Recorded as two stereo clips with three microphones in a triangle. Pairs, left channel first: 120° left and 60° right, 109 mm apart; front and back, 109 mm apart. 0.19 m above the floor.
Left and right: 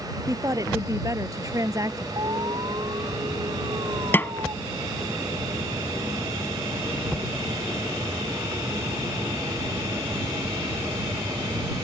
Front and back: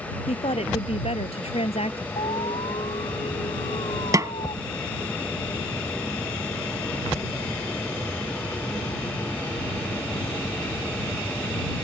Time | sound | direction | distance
0.3 | a woman speaking | 5° right | ?
2.2 | an alarm | 15° right | ?
4.1 | a snare drum | 170° left | ?